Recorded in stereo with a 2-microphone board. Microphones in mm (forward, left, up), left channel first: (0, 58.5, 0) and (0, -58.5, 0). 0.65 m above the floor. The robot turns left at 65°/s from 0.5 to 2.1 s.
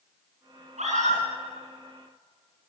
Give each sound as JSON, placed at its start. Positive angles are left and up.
{"t": 0.8, "sound": "a scream", "side_deg": -80, "distance_m": 9.0}